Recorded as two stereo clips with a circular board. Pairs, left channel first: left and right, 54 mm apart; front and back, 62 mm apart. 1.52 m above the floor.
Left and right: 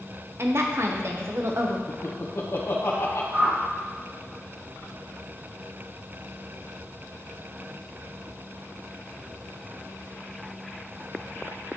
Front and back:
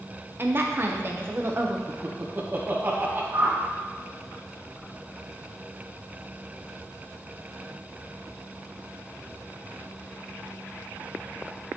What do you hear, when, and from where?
0.4 s a woman speaking: 130° right, 0.9 m
1.9 s laughter: 125° left, 1.1 m
3.3 s a whoosh: 150° right, 1.6 m